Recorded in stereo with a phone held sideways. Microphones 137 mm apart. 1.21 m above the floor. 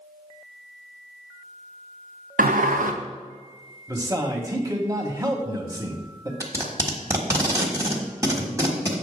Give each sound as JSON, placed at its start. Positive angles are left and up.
{"t": 2.4, "sound": "a sliding door", "side_deg": -80, "distance_m": 0.7}
{"t": 3.9, "sound": "a man speaking", "side_deg": -25, "distance_m": 1.3}
{"t": 6.4, "sound": "tape being pulled", "side_deg": -20, "distance_m": 1.3}